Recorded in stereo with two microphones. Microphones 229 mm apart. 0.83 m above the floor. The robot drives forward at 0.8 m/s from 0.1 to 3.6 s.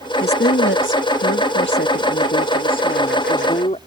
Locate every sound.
0.2 s a woman speaking: 45° left (ahead or behind); by 3.8 s 30° left (ahead or behind)